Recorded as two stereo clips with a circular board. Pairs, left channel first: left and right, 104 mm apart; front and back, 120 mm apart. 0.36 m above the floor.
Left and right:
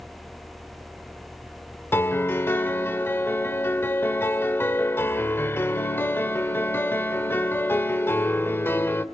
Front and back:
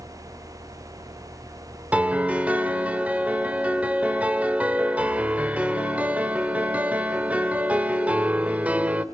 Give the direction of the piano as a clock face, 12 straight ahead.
8 o'clock.